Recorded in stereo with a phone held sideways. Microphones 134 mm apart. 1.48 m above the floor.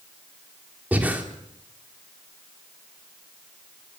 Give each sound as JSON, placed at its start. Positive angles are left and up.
{"t": 0.9, "sound": "breathing", "side_deg": -10, "distance_m": 3.0}